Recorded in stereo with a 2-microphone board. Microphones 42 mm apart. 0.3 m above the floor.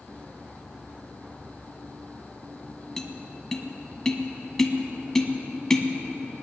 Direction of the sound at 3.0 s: 10° left (ahead or behind).